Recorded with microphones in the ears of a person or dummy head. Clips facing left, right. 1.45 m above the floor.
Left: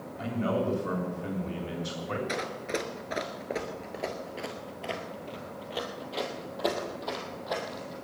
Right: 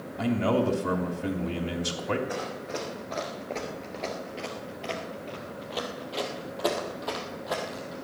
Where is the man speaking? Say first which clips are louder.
Right 5 dB; 85° right, 3 m.